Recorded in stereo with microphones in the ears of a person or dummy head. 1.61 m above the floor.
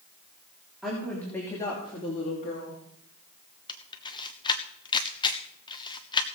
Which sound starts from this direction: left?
A camera shutter, at 3.7 s.